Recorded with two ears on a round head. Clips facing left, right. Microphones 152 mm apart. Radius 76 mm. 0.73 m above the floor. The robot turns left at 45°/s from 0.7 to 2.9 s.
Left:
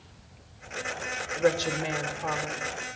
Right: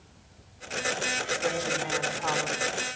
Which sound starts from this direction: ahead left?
A woman speaking, at 1.4 s.